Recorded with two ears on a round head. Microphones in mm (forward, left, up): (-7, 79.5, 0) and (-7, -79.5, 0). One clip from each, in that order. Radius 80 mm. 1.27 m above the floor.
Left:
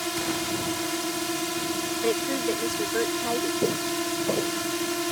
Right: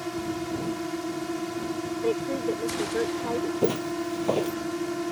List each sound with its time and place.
0.0 s a drone: 65° left (ahead or behind)
2.0 s a woman speaking: 85° left
3.6 s footsteps: 40° right (ahead or behind)